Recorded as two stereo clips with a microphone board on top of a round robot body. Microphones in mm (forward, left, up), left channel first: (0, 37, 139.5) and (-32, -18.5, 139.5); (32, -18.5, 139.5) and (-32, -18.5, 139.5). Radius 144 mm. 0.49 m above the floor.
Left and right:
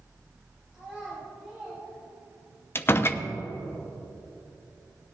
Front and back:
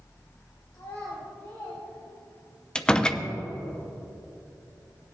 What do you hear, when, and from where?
0.7 s a child speaking: 40° right, 2.5 m; by 2.6 s 60° right, 2.5 m
2.8 s a door slam: 65° left, 0.8 m